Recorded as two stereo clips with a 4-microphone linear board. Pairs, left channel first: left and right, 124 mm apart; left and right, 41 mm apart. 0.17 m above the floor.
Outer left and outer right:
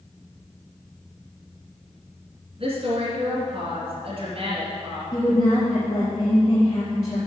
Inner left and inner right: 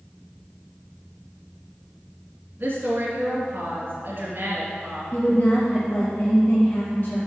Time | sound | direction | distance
2.6 | a woman speaking | 45° right (ahead or behind) | 2.5 m
5.1 | a woman speaking | 35° left (ahead or behind) | 4 m